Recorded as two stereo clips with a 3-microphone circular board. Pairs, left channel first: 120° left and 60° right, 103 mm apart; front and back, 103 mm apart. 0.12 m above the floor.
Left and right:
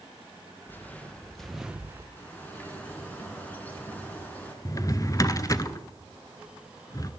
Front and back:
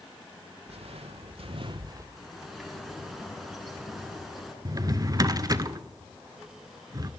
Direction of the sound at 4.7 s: 155° left.